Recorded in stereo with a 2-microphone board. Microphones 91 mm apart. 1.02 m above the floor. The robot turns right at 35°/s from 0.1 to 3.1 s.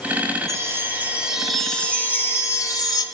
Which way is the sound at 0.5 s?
35° right.